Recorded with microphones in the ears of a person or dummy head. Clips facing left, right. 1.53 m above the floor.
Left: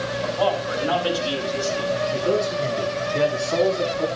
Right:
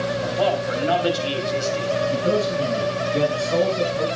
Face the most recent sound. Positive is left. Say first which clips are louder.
# even
turn(degrees=-45)  # may be behind; listen again after turning